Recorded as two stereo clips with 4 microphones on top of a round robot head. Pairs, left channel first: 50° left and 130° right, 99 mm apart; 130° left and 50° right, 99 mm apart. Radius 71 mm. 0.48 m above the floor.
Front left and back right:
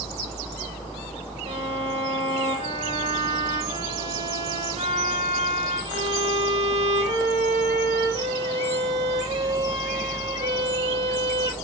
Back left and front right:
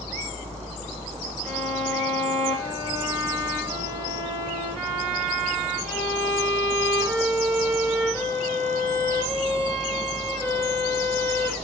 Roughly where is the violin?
Behind right.